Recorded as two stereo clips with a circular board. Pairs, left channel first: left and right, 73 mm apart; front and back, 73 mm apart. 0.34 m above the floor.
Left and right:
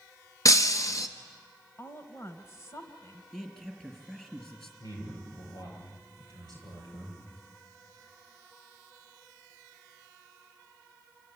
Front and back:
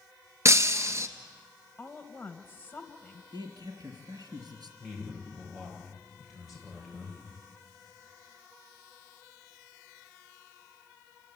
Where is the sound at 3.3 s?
170° left, 4.5 m.